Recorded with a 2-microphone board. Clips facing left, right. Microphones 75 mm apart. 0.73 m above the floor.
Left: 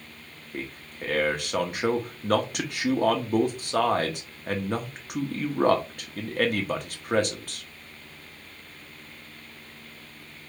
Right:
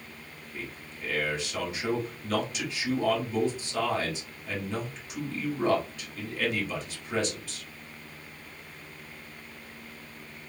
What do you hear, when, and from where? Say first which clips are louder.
0.5 s a man speaking: left 5 dB; 55° left (ahead or behind), 1.1 m